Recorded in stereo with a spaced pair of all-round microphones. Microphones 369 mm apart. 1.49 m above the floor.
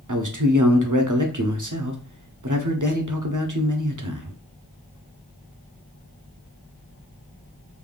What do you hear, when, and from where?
0.1 s a man speaking: 55° right (ahead or behind), 0.9 m